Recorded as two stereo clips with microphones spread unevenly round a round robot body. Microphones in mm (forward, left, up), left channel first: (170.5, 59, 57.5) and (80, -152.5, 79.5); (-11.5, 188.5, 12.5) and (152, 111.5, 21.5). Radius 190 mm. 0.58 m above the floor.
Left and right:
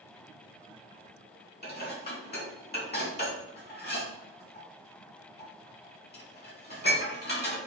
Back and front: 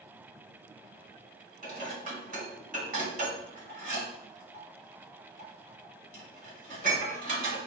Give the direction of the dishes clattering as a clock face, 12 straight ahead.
11 o'clock.